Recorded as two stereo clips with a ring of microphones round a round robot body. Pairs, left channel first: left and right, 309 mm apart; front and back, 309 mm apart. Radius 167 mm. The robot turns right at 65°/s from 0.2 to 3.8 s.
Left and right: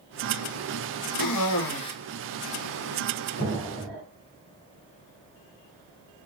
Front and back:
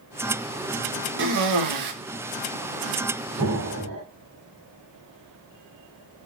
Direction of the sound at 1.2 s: 120° left.